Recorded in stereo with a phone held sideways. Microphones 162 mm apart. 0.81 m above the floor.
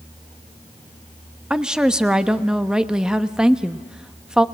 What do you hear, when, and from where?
1.5 s a woman speaking: 5° right (ahead or behind), 0.8 m